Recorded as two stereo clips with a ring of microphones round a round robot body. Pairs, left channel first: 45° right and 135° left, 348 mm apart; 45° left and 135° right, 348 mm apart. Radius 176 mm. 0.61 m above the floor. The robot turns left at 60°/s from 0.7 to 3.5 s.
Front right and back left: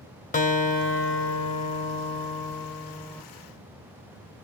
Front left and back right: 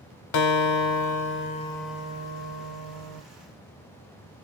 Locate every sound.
0.3 s a guitar: 25° left, 1.2 m; by 3.2 s 125° right, 1.2 m